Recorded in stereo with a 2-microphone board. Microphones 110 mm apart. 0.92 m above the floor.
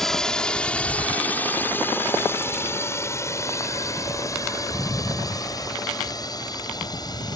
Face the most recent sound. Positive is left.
turn(degrees=35)  # may be behind; listen again after turning